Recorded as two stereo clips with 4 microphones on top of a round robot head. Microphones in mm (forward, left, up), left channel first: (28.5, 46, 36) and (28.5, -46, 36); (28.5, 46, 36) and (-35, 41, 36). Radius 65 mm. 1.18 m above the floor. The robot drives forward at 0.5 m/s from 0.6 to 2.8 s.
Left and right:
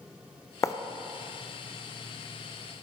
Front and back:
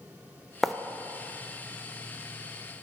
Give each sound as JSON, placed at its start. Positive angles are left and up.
{"t": 0.6, "sound": "writing", "azimuth_deg": 90, "distance_m": 0.6}